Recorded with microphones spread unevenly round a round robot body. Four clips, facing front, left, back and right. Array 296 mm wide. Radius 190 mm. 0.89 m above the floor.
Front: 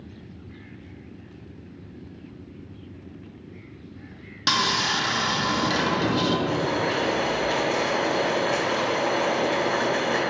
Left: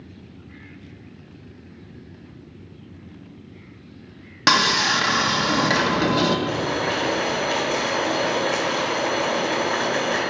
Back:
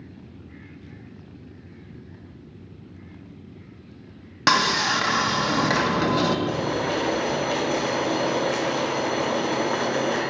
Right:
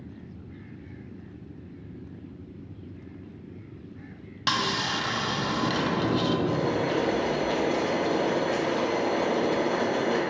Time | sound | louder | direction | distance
4.5 | sawing | left 8 dB, back 4 dB | 115° left | 1.1 m
6.5 | boiling | left 2 dB, even | 115° right | 1.0 m